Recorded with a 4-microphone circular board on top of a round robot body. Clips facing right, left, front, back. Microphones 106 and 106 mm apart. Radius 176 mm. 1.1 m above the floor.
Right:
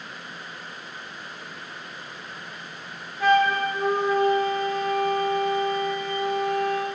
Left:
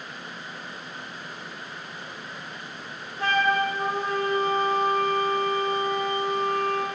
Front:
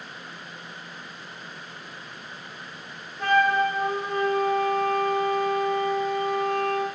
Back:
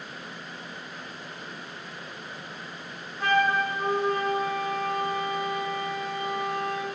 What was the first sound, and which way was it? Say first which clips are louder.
A flute: right 4 dB, front 3 dB; 95° left.